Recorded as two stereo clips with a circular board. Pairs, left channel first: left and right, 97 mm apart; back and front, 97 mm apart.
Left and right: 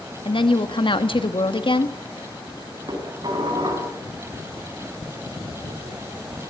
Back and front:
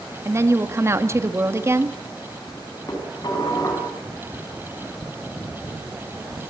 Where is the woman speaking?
60° left, 1.7 m.